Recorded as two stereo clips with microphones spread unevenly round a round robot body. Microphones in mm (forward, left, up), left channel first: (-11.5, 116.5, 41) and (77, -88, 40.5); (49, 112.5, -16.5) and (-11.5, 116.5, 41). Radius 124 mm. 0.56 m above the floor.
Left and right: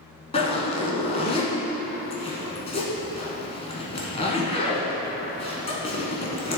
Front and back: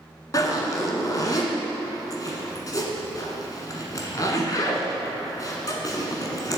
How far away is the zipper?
About 1.2 m.